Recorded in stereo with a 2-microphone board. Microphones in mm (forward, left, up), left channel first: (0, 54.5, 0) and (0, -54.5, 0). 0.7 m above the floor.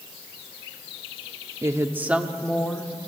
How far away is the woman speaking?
About 1.2 m.